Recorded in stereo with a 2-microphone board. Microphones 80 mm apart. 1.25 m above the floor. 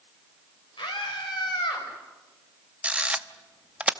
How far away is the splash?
No splash in this recording.